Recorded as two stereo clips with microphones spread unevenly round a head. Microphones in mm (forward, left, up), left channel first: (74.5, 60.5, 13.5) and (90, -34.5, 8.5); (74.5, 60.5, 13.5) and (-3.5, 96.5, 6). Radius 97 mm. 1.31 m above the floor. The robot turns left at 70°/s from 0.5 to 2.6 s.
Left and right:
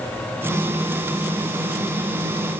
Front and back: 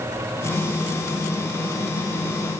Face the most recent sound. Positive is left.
No sound to turn to.